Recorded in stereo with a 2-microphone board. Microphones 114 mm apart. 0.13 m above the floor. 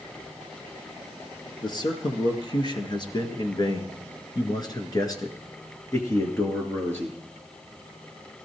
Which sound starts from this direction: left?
A man speaking, at 1.6 s.